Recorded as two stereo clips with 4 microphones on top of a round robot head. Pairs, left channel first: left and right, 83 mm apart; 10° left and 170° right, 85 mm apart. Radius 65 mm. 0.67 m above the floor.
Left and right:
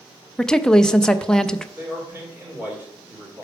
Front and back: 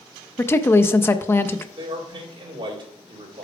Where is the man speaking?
160° right, 2.5 m.